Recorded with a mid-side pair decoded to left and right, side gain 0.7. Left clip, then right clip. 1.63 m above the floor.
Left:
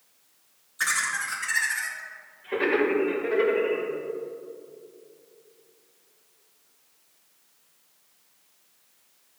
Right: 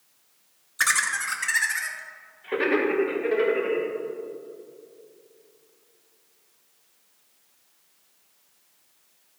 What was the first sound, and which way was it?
Laughter, 35° right.